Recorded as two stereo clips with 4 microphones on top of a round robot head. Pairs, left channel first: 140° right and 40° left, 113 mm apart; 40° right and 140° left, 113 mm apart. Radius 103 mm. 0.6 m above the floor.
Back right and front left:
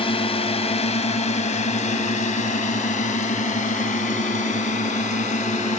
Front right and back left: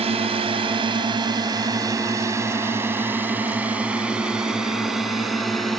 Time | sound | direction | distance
0.0 | a drone | 175° left | ?